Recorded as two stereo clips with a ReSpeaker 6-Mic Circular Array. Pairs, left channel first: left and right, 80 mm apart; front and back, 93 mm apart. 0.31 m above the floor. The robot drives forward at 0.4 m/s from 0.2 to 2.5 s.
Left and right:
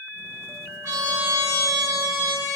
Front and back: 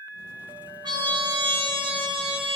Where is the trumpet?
135° right, 0.9 m; by 2.6 s 155° right, 1.5 m.